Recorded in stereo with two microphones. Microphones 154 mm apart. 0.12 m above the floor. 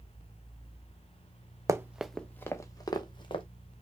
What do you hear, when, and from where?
1.7 s running footsteps: 20° right (ahead or behind), 0.6 m; by 3.4 s 35° left (ahead or behind), 1.4 m